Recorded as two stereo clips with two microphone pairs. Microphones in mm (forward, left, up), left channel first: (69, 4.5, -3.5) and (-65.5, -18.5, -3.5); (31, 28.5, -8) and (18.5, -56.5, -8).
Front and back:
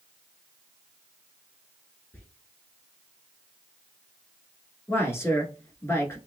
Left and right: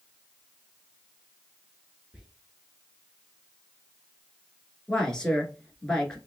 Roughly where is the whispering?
Ahead right.